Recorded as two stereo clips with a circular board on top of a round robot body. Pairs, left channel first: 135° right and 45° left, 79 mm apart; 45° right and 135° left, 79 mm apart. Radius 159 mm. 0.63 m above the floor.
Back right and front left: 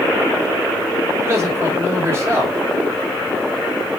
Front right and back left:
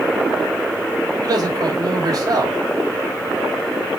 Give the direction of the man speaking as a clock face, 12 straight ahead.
9 o'clock.